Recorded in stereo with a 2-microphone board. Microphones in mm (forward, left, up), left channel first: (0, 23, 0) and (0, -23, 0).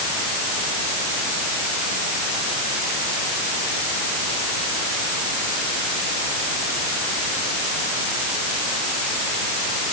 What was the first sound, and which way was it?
Only background noise.